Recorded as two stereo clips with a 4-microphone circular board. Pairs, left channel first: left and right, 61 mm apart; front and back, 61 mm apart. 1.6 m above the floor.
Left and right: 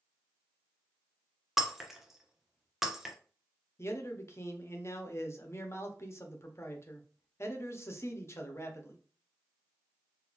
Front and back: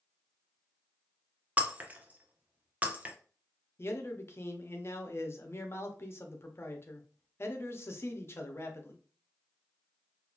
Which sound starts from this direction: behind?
Breaking glass, at 1.6 s.